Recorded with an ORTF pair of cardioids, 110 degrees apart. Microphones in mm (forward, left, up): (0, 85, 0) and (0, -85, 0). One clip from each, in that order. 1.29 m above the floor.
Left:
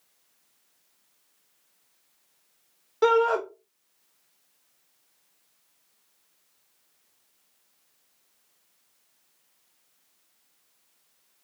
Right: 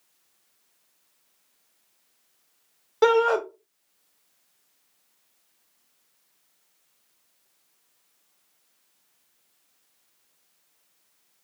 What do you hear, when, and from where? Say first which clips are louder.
3.0 s a shout: right 2 dB; 25° right, 1.1 m